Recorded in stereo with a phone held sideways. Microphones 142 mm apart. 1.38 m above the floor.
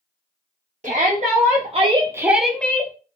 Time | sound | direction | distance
0.8 | a shout | 55° right (ahead or behind) | 1.0 m